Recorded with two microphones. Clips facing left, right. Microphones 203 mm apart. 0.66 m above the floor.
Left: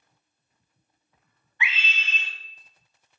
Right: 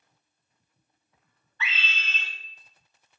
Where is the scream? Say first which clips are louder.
Left 2 dB; 15° left (ahead or behind), 0.8 m.